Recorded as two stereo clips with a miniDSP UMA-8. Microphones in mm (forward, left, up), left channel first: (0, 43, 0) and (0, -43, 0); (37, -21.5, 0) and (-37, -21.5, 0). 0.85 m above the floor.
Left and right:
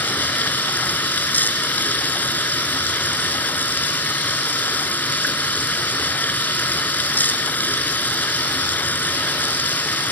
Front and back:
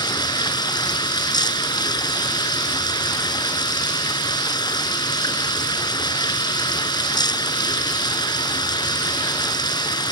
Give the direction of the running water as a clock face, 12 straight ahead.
11 o'clock.